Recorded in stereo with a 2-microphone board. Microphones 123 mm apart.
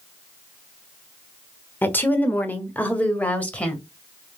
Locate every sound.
1.8 s a woman speaking: 15° left (ahead or behind), 1.1 m; by 3.8 s 10° left (ahead or behind), 1.8 m